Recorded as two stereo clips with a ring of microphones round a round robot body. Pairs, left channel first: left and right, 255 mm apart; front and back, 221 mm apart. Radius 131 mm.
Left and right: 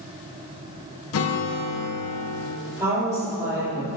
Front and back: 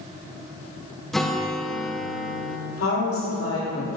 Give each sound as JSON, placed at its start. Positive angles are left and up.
{"t": 1.1, "sound": "a guitar", "azimuth_deg": 90, "distance_m": 0.7}
{"t": 2.8, "sound": "a woman speaking", "azimuth_deg": -10, "distance_m": 1.8}